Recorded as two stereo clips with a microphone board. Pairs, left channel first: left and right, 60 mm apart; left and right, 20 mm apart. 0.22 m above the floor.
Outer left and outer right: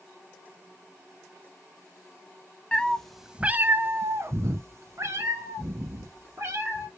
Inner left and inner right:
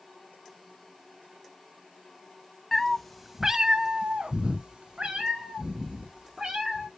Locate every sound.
2.7 s a cat meowing: 20° left (ahead or behind), 0.6 m; by 6.9 s 55° right (ahead or behind), 2.5 m